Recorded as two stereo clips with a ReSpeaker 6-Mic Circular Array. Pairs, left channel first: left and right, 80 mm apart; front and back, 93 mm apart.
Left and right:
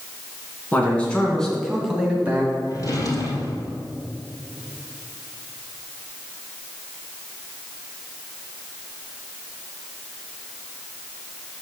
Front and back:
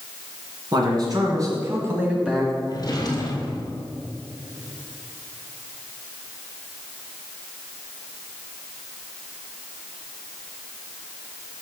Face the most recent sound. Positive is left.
turn(degrees=50)